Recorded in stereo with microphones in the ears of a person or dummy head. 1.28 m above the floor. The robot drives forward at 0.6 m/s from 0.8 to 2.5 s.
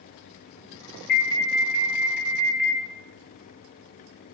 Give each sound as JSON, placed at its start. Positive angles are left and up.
{"t": 1.1, "sound": "an alarm", "side_deg": 65, "distance_m": 2.5}